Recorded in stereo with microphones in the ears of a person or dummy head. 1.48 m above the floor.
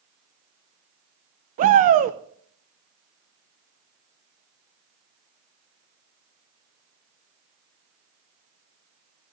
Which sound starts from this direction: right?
A shout, at 1.6 s.